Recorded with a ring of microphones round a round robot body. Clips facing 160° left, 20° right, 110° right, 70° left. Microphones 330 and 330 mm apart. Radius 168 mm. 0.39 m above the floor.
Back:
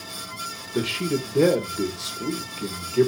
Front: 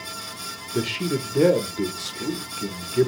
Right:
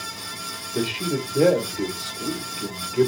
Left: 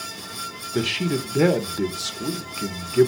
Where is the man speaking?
65° left, 1.2 m.